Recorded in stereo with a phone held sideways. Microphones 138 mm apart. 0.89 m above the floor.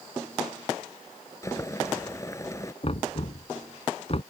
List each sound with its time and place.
1.4 s boiling: 20° left (ahead or behind)
2.8 s knocking: 45° left (ahead or behind)